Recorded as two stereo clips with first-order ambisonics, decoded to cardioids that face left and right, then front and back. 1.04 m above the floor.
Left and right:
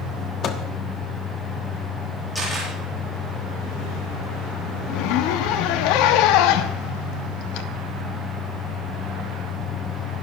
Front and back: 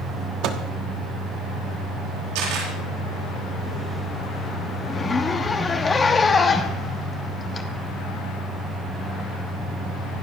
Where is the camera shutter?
Straight behind, 8 m.